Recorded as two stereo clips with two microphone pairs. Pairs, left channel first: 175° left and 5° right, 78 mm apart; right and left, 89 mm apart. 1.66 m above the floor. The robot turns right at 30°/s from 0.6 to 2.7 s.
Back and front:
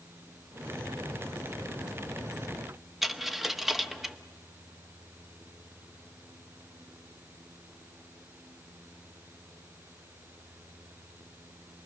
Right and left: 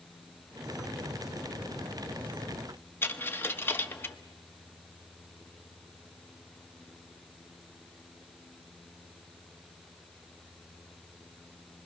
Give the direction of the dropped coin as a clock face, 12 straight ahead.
3 o'clock.